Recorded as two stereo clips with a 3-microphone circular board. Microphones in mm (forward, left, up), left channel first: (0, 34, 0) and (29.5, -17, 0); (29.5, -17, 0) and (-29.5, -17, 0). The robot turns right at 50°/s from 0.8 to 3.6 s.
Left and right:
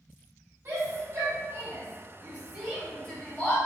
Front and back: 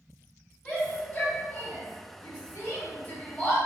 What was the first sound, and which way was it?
A shout, 70° right.